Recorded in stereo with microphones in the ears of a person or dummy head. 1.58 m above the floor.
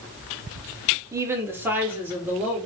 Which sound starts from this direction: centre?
A woman speaking, at 1.1 s.